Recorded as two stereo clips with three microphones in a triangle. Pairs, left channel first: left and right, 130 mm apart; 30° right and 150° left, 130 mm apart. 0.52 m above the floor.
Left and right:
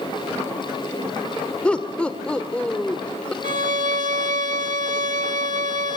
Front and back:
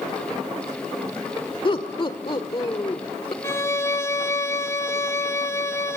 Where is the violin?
100° right, 0.8 m.